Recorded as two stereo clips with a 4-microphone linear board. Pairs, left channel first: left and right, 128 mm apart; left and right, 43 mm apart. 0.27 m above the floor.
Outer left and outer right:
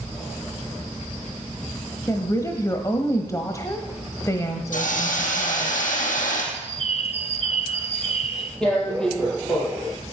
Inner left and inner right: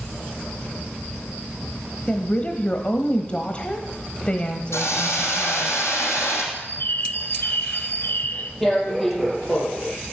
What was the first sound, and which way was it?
A woman speaking, 25° left (ahead or behind).